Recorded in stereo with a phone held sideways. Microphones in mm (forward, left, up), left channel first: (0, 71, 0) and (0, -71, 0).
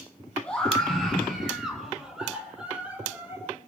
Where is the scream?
5° left (ahead or behind), 7.5 m; by 3.4 s 10° right (ahead or behind), 10.5 m.